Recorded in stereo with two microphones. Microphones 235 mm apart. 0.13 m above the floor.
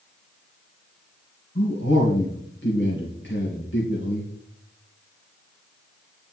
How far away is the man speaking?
About 2.5 m.